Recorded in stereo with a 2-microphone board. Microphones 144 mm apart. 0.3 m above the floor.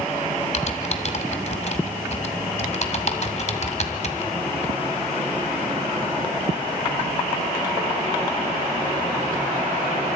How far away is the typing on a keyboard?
About 1.9 m.